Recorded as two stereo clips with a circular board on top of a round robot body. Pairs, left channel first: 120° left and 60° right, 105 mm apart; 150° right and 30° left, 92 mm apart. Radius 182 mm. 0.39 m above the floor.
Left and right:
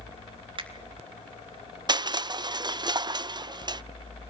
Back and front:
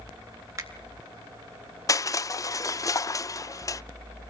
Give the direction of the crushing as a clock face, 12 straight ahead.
3 o'clock.